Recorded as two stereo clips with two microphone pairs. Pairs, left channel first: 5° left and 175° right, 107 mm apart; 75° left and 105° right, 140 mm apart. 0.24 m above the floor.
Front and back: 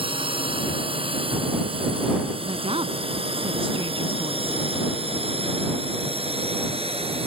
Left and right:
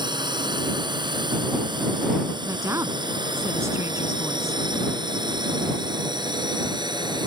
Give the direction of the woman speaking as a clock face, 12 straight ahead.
6 o'clock.